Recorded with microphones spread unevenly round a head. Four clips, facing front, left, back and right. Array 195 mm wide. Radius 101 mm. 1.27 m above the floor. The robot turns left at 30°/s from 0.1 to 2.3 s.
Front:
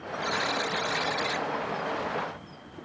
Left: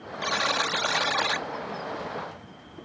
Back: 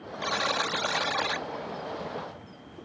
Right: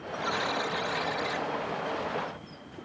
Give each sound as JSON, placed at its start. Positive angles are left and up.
{"t": 0.2, "sound": "a buzzer", "azimuth_deg": 125}